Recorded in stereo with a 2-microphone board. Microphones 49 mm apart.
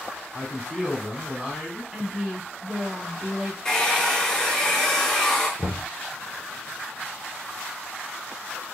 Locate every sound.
0.3 s a man speaking: 15° right (ahead or behind), 3 m
1.9 s a woman speaking: 15° right (ahead or behind), 1.1 m
3.6 s a hair dryer: 10° left (ahead or behind), 1.8 m
5.6 s knocking: 55° left (ahead or behind), 2.5 m